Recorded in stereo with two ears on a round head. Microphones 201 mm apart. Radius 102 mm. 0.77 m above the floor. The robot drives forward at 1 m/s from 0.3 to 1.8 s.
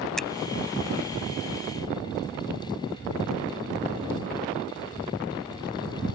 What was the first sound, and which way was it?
A finger snap, centre (ahead or behind).